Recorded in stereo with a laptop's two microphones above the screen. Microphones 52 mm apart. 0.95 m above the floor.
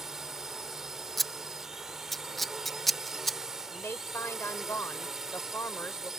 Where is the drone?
5° right (ahead or behind).